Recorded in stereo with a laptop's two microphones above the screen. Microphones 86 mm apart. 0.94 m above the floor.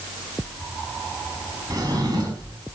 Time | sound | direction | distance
1.7 | a drawer | 50° right (ahead or behind) | 4.5 m